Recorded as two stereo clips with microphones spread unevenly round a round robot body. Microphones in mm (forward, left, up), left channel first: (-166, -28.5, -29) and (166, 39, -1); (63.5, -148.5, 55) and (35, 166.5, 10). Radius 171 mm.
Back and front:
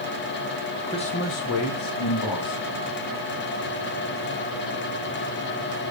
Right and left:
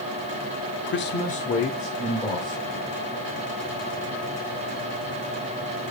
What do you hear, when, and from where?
0.9 s a man speaking: 100° right, 0.9 m; by 2.9 s straight behind, 2.5 m